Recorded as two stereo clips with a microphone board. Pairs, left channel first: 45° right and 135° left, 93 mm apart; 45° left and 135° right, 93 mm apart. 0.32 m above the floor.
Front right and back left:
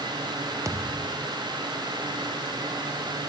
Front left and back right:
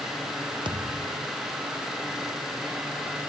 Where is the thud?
170° right.